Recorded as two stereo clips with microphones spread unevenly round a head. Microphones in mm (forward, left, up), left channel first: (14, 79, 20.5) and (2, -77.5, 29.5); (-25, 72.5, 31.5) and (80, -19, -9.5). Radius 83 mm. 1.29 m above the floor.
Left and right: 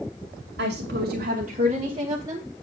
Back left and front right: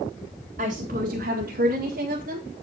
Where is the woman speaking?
80° right, 2 m; by 2.5 s 20° right, 2.5 m.